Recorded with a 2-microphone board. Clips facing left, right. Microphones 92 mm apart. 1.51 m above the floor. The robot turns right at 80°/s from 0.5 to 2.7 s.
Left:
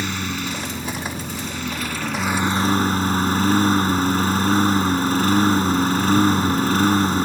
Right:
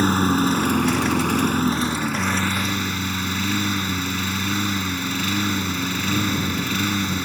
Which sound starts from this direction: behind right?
A lawn mower, at 0.0 s.